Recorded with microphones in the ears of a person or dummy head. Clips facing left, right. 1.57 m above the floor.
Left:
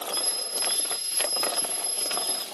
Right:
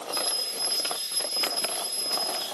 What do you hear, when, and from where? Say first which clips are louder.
0.1 s a bell: right 1 dB; 10° left (ahead or behind), 1.2 m